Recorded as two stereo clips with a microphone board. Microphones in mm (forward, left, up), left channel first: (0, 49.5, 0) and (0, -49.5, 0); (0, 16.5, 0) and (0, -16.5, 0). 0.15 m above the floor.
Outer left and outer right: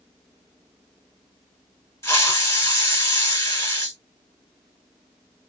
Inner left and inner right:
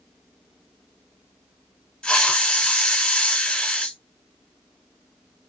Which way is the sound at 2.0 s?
30° left (ahead or behind).